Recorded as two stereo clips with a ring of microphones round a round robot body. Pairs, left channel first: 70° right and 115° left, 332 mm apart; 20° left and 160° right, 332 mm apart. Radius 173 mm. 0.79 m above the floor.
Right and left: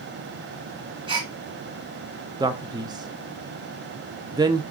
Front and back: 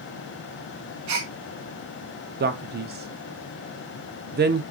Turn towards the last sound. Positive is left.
turn(degrees=180)